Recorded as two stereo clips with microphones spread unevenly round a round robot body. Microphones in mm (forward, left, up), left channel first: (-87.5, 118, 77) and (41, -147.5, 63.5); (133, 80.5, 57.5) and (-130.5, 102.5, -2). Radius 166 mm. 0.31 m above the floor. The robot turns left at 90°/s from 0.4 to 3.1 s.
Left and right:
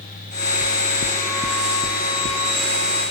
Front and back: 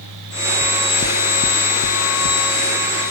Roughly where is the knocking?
Left.